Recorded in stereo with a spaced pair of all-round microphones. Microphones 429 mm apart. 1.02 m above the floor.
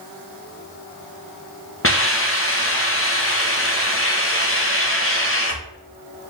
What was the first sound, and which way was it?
A hiss, 30° left (ahead or behind).